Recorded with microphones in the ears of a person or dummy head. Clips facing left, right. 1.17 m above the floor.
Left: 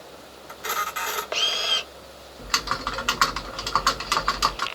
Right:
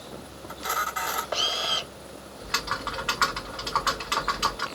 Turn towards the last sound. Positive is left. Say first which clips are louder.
# left 3 dB
turn(degrees=55)  # may be behind; listen again after turning